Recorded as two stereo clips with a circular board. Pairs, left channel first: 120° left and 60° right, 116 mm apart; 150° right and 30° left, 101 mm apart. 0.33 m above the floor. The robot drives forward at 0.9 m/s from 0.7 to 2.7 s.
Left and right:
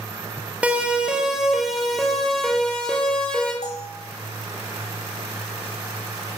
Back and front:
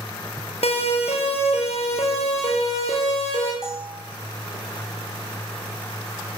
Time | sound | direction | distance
0.6 | a siren | 140° right | 8.5 m
3.6 | a bell | 115° left | 6.5 m